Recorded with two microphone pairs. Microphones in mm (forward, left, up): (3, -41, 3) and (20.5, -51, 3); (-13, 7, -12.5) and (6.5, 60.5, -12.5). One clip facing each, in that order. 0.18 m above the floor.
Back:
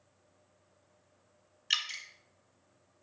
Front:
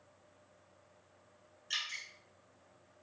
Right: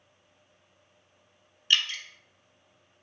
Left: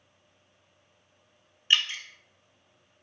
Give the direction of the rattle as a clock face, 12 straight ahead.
I don't hear a rattle.